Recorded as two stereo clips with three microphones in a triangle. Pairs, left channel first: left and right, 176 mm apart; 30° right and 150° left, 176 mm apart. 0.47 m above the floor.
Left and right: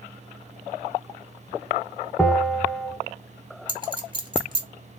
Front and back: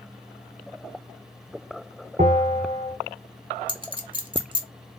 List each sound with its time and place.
2.2 s a bell: 175° left, 1.4 m
3.7 s a clink: 150° right, 1.0 m